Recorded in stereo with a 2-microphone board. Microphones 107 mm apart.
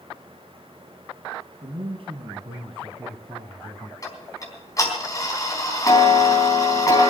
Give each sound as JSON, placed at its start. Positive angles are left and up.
{"t": 1.6, "sound": "a man speaking", "side_deg": -70, "distance_m": 3.0}
{"t": 4.0, "sound": "ticking", "side_deg": 30, "distance_m": 3.5}